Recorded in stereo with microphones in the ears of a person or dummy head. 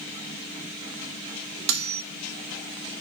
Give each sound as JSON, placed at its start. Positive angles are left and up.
{"t": 1.7, "sound": "cutlery clinking", "side_deg": -65, "distance_m": 0.8}